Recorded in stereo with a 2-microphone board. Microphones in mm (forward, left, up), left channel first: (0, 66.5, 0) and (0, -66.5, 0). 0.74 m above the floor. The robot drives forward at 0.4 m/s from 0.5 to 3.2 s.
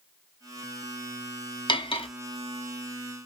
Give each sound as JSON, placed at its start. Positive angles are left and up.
{"t": 1.7, "sound": "cutlery clinking", "side_deg": 35, "distance_m": 0.8}